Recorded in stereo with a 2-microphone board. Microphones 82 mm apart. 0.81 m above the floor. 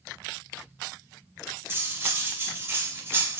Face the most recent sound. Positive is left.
turn(degrees=-30)  # may be behind; listen again after turning